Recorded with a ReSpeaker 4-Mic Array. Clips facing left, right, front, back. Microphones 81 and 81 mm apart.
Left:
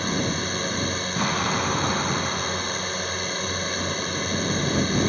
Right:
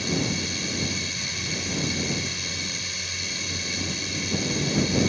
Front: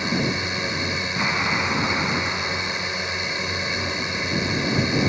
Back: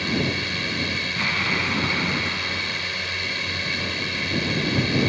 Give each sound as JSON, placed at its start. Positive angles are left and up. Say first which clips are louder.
{"t": 0.0, "sound": "a drone", "louder": "left 2 dB, front 1 dB", "azimuth_deg": 65}
{"t": 1.2, "sound": "an explosion", "louder": "left 10 dB, front 2 dB", "azimuth_deg": 70}